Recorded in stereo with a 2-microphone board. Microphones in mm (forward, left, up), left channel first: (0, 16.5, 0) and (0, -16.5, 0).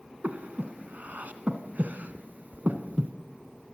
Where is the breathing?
55° right (ahead or behind), 2 m.